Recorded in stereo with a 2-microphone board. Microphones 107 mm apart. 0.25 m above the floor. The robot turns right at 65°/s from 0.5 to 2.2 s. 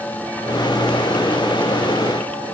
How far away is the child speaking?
I don't hear a child speaking.